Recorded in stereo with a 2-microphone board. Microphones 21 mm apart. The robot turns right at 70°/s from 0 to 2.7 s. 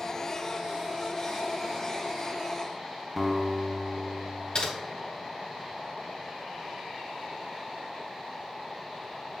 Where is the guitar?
Centre (ahead or behind), 0.8 m.